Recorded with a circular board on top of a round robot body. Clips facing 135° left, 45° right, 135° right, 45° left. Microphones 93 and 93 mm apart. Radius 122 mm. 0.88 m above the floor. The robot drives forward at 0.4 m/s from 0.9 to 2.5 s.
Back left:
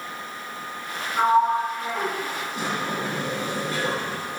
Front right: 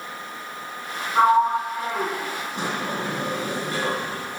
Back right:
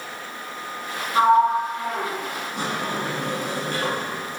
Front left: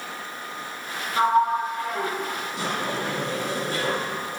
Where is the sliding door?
90° right, 5 m; by 4.4 s 95° right, 5 m.